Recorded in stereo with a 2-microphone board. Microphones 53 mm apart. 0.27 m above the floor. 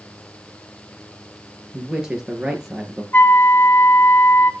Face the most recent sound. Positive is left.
turn(degrees=45)  # may be behind; listen again after turning